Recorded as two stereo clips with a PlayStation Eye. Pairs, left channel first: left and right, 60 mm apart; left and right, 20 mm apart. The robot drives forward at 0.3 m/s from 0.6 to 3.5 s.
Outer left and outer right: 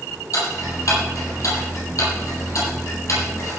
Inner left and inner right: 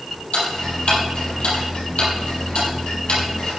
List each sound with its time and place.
0.3 s ticking: 60° left (ahead or behind), 6.5 m; by 3.6 s 55° left (ahead or behind), 7 m